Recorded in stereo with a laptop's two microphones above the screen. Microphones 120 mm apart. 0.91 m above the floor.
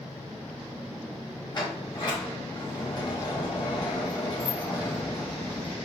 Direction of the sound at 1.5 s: 40° left (ahead or behind).